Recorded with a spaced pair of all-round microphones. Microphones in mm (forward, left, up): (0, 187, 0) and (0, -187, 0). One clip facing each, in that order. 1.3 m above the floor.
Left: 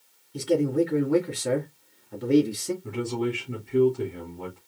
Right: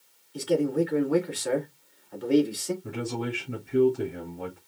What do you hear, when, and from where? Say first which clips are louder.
0.3 s a man speaking: left 2 dB; 35° left (ahead or behind), 2.5 m
2.8 s a man speaking: left 4 dB; 10° left (ahead or behind), 3 m